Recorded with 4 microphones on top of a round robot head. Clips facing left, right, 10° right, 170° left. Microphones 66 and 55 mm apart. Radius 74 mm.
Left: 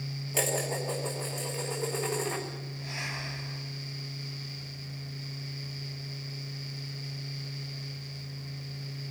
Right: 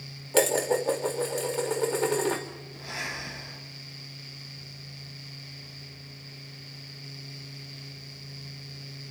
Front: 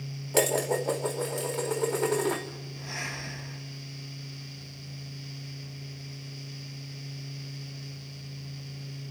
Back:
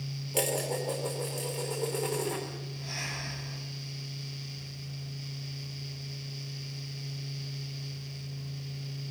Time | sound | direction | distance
0.3 | dishes clattering | 50° right | 3 m
2.7 | breathing | 75° right | 8.5 m